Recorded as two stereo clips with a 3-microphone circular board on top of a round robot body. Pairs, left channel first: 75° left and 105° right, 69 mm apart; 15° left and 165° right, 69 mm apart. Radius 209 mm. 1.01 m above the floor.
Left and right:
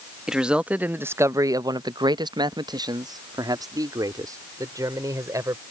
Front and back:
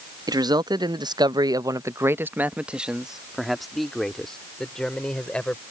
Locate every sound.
0.3 s a man speaking: 170° left; by 5.6 s 65° right